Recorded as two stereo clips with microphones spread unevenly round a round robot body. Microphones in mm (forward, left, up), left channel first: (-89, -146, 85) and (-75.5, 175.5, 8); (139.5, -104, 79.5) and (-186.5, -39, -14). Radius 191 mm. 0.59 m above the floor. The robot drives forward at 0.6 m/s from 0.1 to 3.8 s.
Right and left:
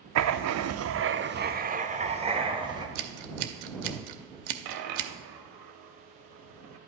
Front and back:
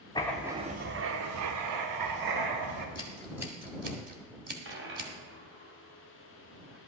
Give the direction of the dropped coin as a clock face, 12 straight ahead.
9 o'clock.